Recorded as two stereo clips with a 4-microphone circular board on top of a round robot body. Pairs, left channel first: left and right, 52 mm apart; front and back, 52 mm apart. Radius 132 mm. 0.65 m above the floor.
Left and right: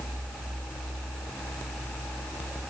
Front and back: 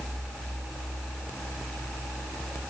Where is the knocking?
No knocking in this recording.